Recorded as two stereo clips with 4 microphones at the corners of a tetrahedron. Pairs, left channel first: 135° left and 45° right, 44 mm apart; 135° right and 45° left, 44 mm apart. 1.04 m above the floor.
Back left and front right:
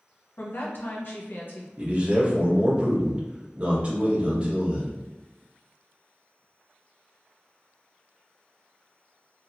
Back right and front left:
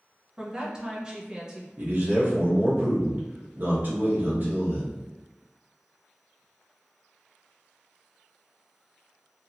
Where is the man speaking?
10° left, 1.2 m.